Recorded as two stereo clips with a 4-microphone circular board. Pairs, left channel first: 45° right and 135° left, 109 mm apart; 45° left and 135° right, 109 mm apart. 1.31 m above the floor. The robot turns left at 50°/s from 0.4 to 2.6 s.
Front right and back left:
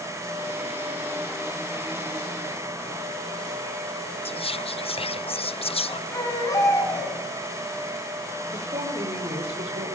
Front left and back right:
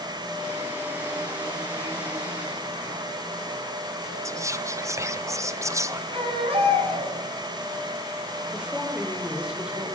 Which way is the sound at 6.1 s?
105° right.